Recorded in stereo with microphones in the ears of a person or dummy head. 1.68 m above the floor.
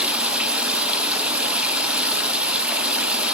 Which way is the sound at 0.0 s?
5° right (ahead or behind).